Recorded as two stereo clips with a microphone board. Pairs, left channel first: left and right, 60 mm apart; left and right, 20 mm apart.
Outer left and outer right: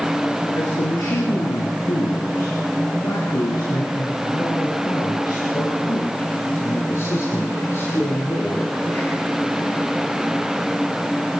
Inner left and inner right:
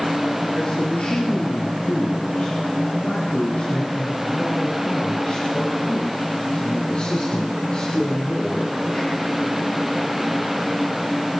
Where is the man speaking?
70° left (ahead or behind), 6.5 m; by 9.3 s 30° left (ahead or behind), 10.5 m.